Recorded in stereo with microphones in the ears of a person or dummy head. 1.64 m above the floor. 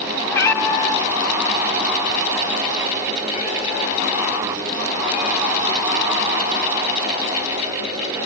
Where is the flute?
I don't hear a flute.